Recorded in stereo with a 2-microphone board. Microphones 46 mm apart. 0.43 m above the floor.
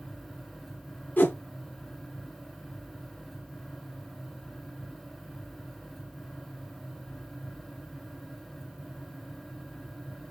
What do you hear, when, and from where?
1.2 s a whoosh: 40° left (ahead or behind), 0.8 m